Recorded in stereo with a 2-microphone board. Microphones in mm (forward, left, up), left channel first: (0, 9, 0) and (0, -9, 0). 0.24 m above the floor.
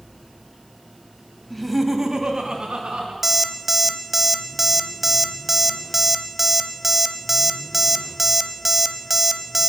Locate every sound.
1.5 s laughter: 10° left (ahead or behind), 1.2 m; by 3.1 s 65° right (ahead or behind), 2.5 m
3.2 s an alarm clock: 15° right (ahead or behind), 0.6 m